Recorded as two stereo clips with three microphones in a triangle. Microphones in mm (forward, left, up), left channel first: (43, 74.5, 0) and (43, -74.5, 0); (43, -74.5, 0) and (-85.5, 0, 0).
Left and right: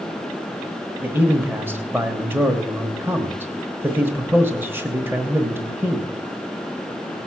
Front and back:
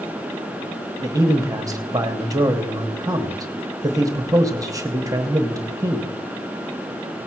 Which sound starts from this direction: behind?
A man speaking, at 1.0 s.